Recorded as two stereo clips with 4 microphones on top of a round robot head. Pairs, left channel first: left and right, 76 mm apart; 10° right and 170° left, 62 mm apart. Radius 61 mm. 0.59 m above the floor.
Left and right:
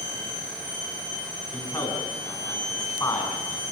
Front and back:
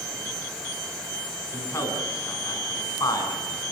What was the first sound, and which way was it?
A man speaking, 30° left.